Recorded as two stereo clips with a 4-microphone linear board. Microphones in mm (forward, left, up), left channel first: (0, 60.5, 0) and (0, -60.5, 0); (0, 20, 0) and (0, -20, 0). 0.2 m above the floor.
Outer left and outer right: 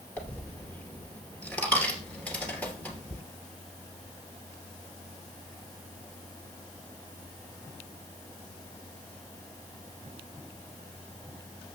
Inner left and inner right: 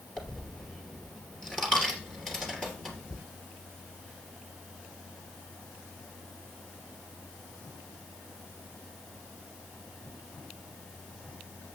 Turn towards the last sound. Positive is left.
turn(degrees=15)  # may be behind; listen again after turning